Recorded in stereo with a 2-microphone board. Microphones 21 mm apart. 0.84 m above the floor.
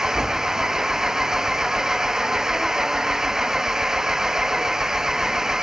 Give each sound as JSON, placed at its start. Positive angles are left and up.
{"t": 0.0, "sound": "an engine running", "side_deg": -25}